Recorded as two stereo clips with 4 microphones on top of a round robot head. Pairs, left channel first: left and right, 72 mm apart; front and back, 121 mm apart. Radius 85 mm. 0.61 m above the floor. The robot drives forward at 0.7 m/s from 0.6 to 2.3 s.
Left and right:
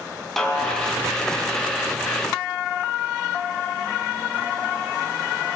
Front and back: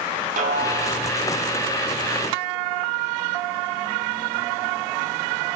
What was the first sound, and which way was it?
A snare drum, 175° left.